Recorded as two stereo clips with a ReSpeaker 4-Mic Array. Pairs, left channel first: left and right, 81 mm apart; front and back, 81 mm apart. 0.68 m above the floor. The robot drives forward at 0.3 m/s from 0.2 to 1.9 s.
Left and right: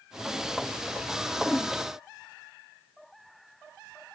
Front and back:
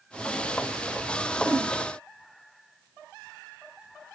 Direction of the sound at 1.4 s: 170° left.